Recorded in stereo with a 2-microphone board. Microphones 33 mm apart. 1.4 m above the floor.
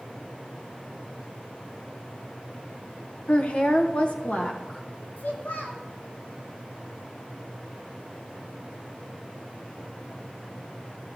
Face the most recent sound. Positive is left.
turn(degrees=80)